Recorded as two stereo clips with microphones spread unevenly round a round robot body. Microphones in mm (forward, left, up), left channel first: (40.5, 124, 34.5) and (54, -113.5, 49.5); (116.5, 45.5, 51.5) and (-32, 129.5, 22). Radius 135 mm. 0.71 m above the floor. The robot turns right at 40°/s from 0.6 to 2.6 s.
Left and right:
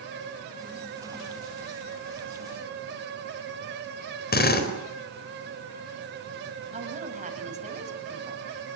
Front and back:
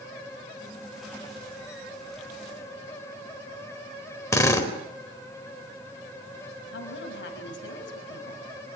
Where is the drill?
45° left, 4 m.